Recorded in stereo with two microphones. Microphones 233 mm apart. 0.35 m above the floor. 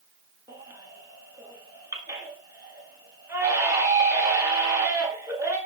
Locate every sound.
0.5 s a baby crying: 15° right (ahead or behind), 1.6 m